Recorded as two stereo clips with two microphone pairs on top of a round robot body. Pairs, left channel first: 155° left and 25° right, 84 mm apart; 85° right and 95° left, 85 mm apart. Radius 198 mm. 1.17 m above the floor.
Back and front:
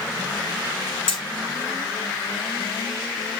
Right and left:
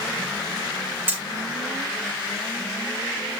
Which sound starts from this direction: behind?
Hammering, at 1.1 s.